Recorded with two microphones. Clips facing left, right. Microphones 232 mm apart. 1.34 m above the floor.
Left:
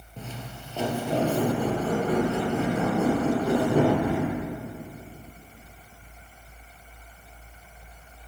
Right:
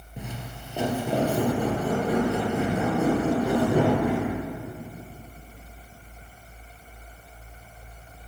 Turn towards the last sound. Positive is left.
turn(degrees=-15)  # may be behind; listen again after turning